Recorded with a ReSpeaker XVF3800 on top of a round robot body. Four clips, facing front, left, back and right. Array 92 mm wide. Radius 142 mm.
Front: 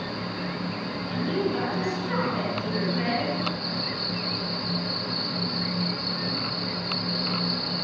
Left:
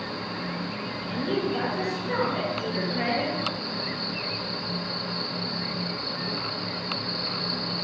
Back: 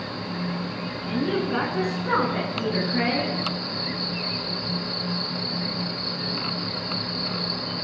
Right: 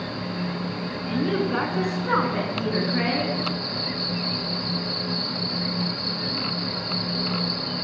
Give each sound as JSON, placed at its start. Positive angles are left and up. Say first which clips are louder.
{"t": 1.1, "sound": "a woman speaking", "louder": "right 3 dB, back 2 dB", "azimuth_deg": -130, "distance_m": 8.0}